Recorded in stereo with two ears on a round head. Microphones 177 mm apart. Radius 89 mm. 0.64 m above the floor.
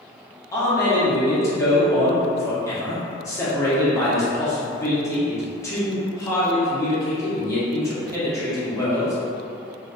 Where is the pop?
No pop in this recording.